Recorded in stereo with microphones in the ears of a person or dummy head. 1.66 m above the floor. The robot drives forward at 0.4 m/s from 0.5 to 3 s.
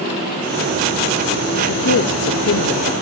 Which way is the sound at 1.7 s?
70° left (ahead or behind).